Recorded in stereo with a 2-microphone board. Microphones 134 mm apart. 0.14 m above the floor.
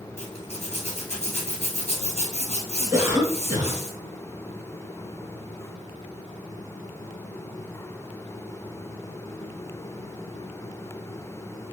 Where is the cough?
20° right (ahead or behind), 1.2 m.